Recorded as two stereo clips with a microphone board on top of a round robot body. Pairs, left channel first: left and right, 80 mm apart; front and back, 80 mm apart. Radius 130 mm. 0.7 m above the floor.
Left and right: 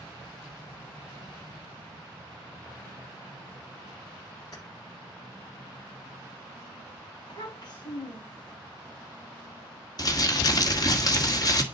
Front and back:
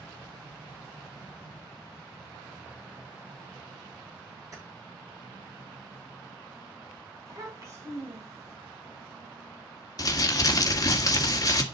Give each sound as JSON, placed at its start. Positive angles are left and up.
{"t": 4.5, "sound": "keys jangling", "azimuth_deg": 135, "distance_m": 9.5}
{"t": 7.3, "sound": "a child speaking", "azimuth_deg": 130, "distance_m": 4.0}
{"t": 10.0, "sound": "crumpling", "azimuth_deg": 50, "distance_m": 1.7}